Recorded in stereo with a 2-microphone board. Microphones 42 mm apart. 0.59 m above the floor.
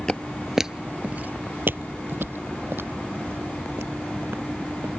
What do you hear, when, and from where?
0.1 s footsteps: 15° left (ahead or behind); by 4.9 s 65° right (ahead or behind)